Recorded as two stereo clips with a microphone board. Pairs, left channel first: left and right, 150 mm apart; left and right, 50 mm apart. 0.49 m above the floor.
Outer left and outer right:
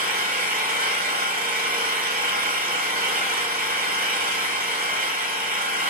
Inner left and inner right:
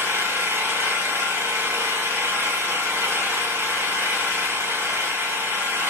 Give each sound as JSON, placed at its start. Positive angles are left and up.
{"t": 0.0, "sound": "an engine running", "side_deg": -70, "distance_m": 0.9}